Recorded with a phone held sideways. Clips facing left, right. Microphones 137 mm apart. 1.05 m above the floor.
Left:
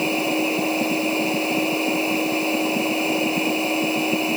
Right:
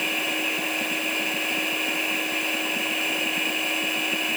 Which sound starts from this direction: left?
A machine running, at 0.0 s.